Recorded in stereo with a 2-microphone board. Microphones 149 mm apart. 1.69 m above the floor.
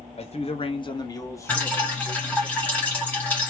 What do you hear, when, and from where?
0.2 s a man speaking: 45° left (ahead or behind), 0.8 m; by 2.5 s 5° left (ahead or behind), 1.5 m
1.5 s dripping: 10° left (ahead or behind), 2.0 m